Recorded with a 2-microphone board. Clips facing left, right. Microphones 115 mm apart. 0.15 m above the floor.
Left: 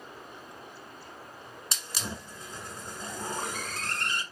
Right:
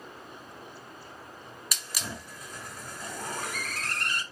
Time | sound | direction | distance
1.7 | a hiss | 30° left (ahead or behind) | 1.3 m